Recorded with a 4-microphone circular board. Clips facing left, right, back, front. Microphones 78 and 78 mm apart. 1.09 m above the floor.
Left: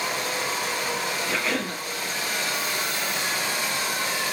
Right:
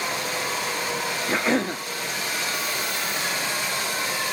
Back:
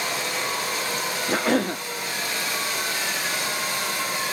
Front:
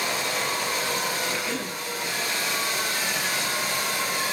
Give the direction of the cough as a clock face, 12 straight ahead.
5 o'clock.